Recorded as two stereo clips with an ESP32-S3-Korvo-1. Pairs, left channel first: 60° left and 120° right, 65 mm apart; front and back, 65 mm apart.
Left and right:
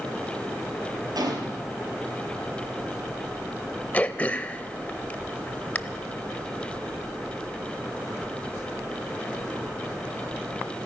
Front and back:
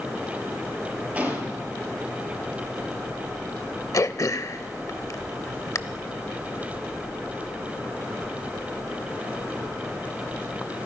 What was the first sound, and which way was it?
A gunshot, 110° right.